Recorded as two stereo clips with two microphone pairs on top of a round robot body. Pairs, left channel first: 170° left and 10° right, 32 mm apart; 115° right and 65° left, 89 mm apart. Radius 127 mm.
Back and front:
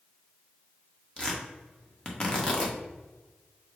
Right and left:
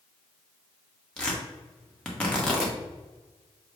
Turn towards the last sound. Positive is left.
turn(degrees=-165)